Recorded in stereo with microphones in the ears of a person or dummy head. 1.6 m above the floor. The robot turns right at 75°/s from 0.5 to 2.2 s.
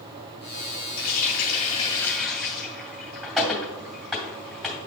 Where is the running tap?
70° left (ahead or behind), 2.5 m; by 4.8 s centre (ahead or behind), 2.5 m.